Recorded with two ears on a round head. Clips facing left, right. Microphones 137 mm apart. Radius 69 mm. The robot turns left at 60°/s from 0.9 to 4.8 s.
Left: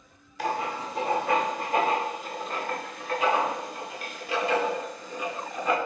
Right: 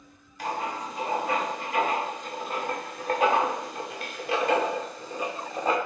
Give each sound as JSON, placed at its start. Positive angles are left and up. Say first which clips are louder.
{"t": 0.4, "sound": "writing", "louder": "left 2 dB", "side_deg": 55, "distance_m": 0.7}